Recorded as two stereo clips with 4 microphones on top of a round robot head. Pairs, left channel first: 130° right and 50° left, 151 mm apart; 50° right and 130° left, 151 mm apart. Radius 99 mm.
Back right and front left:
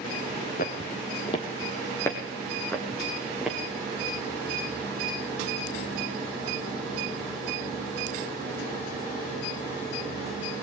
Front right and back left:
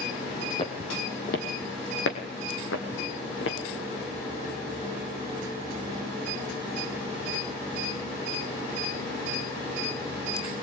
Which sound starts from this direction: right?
Footsteps, at 0.6 s.